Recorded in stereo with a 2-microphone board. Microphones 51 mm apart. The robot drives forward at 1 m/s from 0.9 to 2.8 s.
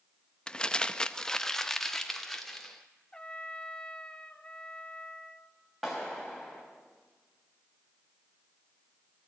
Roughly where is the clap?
Centre.